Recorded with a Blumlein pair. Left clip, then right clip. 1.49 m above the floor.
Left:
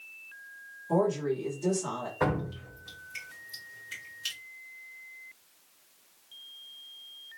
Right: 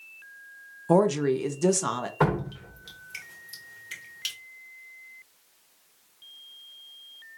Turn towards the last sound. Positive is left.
turn(degrees=-40)